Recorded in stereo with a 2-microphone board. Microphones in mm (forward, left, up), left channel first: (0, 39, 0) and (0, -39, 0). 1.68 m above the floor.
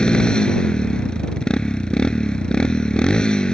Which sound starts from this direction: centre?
A motorcycle, at 0.0 s.